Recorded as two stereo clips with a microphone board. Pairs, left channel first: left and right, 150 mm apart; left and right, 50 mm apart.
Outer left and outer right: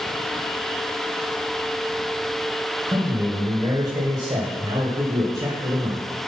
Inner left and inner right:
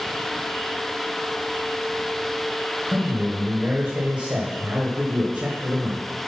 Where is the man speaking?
30° right (ahead or behind), 1.7 m.